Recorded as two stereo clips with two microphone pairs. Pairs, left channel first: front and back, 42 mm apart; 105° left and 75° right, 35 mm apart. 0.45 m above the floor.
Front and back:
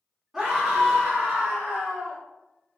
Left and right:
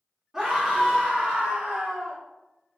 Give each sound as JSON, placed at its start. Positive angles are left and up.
{"t": 0.3, "sound": "a scream", "azimuth_deg": -125, "distance_m": 1.4}